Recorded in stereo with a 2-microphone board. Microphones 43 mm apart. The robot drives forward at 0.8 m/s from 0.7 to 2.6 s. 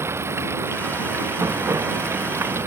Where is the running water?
85° right; by 2.7 s 90° right.